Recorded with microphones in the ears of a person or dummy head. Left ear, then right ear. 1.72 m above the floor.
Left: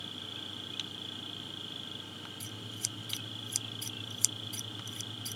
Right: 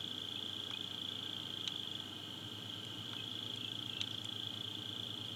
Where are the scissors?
55° left (ahead or behind).